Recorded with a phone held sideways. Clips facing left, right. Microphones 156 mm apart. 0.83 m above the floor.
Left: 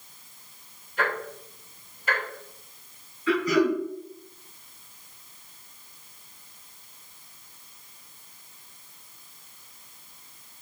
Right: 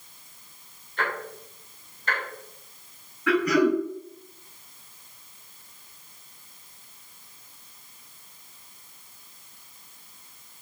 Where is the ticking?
10° left (ahead or behind), 3.5 m.